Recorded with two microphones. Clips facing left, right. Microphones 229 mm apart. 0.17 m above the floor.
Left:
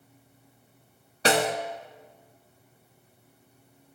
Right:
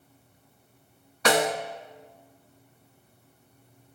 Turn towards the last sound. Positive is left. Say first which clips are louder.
# right 1 dB
turn(degrees=35)  # may be behind; listen again after turning